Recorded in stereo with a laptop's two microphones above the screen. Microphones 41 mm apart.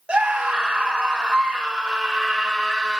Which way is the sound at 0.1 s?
30° right (ahead or behind).